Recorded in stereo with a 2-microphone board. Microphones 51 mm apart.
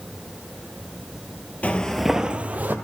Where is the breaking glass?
I don't hear breaking glass.